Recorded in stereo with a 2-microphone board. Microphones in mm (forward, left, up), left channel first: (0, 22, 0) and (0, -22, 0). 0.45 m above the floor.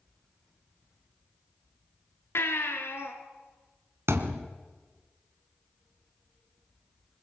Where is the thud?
80° right, 2 m.